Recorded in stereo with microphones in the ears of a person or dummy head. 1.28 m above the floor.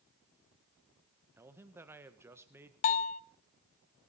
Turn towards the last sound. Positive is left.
turn(degrees=40)  # may be behind; listen again after turning